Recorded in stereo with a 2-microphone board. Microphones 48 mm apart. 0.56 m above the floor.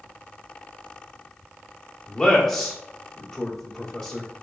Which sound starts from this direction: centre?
A man speaking, at 2.1 s.